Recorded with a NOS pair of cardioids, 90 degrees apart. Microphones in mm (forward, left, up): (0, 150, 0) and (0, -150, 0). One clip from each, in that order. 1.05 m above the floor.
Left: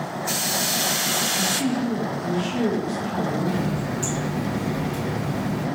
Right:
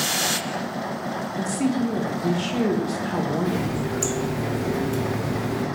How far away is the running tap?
About 1.4 m.